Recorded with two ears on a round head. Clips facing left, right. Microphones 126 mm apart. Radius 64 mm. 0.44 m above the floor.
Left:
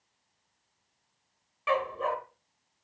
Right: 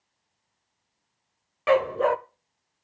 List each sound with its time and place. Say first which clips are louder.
1.7 s a dog barking: right 8 dB; 55° right (ahead or behind), 0.5 m